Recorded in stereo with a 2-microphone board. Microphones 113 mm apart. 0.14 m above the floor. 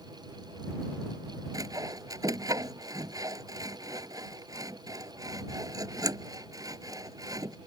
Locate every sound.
1.5 s sawing: 30° right (ahead or behind)